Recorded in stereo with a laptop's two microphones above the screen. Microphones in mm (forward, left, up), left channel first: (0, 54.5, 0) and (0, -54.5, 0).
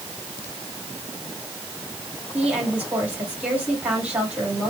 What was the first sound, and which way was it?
A woman speaking, 10° right (ahead or behind).